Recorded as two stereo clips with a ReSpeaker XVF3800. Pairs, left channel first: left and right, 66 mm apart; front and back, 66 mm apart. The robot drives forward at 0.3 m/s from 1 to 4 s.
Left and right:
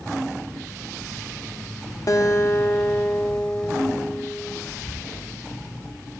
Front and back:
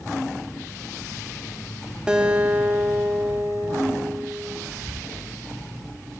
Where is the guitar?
105° left, 0.7 m; by 4.6 s 140° left, 1.0 m.